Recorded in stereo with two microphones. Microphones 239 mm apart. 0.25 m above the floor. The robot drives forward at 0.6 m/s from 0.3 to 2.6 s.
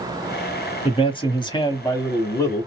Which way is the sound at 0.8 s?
20° left (ahead or behind).